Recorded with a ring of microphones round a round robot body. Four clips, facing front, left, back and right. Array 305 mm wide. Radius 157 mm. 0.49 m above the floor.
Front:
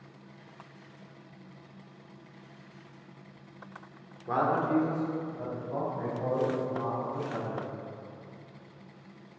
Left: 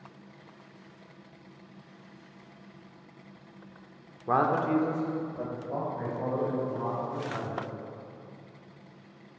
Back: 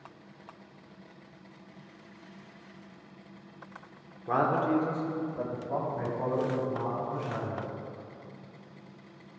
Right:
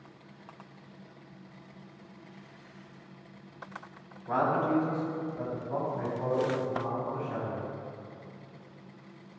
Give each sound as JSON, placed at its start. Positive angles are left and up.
{"t": 4.3, "sound": "a man speaking", "azimuth_deg": 95, "distance_m": 1.2}